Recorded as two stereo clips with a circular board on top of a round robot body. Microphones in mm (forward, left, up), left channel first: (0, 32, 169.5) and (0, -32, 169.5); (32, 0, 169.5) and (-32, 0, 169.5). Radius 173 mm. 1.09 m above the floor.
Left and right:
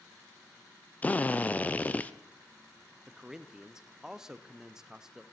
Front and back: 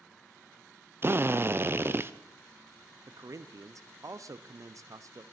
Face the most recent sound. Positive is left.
turn(degrees=-170)